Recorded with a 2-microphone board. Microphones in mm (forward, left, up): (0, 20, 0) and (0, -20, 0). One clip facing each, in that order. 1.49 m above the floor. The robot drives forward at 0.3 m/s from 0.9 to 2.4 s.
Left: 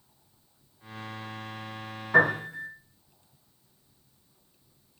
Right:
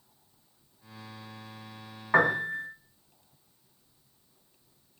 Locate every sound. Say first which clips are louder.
2.1 s a piano: left 2 dB; 55° right (ahead or behind), 1.1 m; by 2.7 s 60° right (ahead or behind), 1.0 m